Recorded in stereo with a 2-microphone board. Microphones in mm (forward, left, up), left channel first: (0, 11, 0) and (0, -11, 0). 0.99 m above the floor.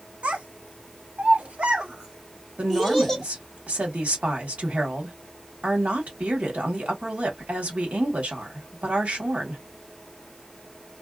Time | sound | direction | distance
0.2 | a child speaking | 70° right (ahead or behind) | 1.1 m
2.6 | a woman speaking | 80° right | 1.4 m